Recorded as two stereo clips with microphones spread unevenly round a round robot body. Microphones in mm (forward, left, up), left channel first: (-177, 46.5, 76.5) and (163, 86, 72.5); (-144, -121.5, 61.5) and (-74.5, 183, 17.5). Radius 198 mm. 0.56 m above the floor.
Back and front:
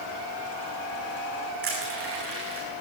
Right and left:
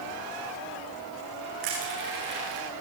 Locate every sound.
1.6 s crushing: 60° left, 9.5 m